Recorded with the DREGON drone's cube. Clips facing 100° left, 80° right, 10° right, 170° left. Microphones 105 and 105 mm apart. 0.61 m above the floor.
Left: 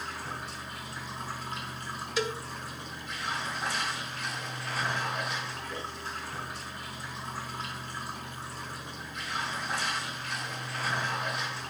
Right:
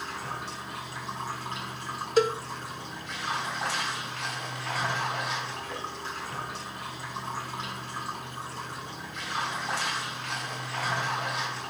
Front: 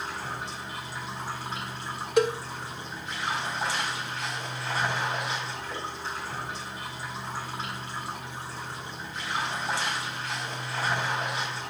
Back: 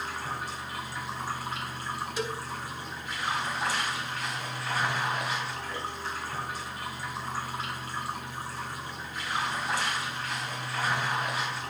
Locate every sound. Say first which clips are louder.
0.0 s running water: right 2 dB, even; 75° right, 4.5 m
2.2 s a cowbell: right 9 dB, front 12 dB; 35° right, 1.3 m